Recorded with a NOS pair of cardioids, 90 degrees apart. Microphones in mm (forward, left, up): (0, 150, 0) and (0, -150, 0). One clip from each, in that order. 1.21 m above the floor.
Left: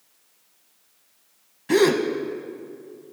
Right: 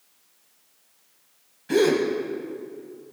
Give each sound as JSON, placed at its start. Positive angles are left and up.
{"t": 1.7, "sound": "a gasp", "azimuth_deg": 30, "distance_m": 0.9}